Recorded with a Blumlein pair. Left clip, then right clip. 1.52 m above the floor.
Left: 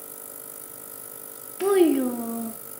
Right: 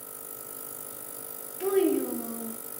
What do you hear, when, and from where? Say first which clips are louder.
1.6 s a child speaking: left 5 dB; 65° left, 0.8 m